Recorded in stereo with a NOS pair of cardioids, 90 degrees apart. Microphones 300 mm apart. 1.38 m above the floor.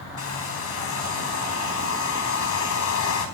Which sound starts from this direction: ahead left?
A hair dryer, at 0.2 s.